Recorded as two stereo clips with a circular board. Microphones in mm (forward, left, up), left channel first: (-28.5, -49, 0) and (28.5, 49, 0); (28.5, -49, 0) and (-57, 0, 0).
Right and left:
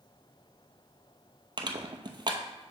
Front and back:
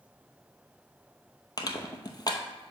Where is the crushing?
15° left, 0.8 m.